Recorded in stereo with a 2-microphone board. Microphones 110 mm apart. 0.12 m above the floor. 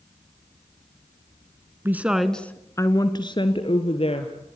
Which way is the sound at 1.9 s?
20° right (ahead or behind).